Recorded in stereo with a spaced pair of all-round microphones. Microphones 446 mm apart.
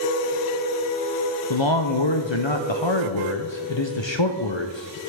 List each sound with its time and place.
1.5 s a man speaking: 70° left (ahead or behind), 0.7 m